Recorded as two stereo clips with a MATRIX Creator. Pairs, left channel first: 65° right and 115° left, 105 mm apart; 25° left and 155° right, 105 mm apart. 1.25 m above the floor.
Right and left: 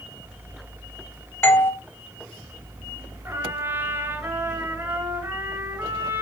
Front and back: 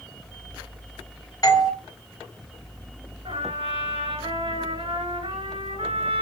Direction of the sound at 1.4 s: 10° right.